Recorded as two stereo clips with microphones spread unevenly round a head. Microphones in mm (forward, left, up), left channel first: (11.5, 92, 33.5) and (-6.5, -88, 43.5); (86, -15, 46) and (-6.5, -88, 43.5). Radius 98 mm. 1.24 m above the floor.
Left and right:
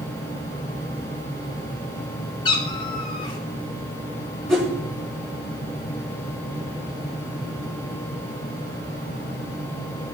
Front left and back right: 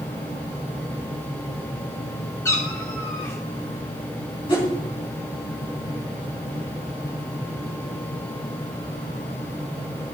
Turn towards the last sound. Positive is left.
turn(degrees=-5)